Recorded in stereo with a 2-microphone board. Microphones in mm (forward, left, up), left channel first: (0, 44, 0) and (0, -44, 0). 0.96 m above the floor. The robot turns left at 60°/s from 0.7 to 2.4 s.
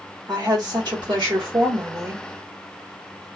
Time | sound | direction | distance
0.3 | a woman speaking | 55° right | 1.5 m